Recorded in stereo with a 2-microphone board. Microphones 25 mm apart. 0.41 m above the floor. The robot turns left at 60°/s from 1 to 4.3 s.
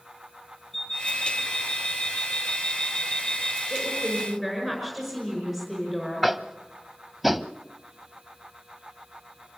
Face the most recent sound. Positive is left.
turn(degrees=-5)  # may be behind; listen again after turning